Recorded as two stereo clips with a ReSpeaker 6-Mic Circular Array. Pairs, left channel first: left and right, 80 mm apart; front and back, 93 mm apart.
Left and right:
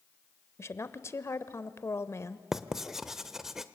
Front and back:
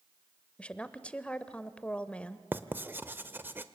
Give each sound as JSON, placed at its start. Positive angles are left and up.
{"t": 0.6, "sound": "a woman speaking", "azimuth_deg": 70, "distance_m": 1.0}
{"t": 2.5, "sound": "writing", "azimuth_deg": -165, "distance_m": 1.0}